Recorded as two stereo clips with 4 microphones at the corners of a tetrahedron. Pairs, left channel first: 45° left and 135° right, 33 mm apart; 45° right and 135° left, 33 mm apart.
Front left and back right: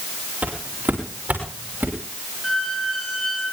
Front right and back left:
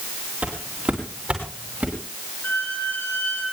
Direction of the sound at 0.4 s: 175° right.